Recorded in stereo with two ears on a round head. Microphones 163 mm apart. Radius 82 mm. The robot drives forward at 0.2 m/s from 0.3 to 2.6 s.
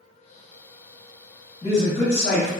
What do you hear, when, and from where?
1.6 s a man speaking: 35° left (ahead or behind), 1.5 m